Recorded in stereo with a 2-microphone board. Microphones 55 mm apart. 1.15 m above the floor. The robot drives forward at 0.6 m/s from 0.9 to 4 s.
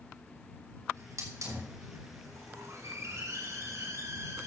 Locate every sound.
0.9 s a hiss: 85° right, 4 m; by 4.5 s 65° right (ahead or behind), 4 m